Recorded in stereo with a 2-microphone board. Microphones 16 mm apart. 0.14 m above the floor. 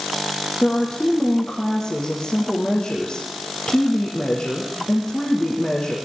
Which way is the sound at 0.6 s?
75° left (ahead or behind).